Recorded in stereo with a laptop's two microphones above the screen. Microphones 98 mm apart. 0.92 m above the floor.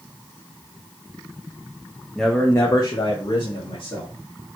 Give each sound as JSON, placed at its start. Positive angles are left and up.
{"t": 2.1, "sound": "a man speaking", "side_deg": 0, "distance_m": 0.8}